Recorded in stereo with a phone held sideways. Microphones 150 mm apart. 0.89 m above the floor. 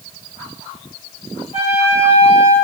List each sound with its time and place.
1.5 s a trumpet: 40° left (ahead or behind), 4 m